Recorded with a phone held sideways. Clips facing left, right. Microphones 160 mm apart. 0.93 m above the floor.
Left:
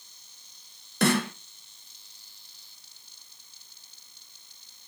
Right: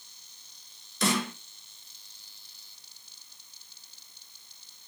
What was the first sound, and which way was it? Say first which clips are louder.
A snare drum: left 4 dB; 60° left (ahead or behind).